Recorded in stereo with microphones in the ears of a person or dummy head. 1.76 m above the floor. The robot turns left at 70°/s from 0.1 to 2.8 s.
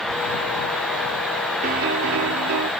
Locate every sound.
1.6 s a piano: 45° right; by 2.7 s 120° right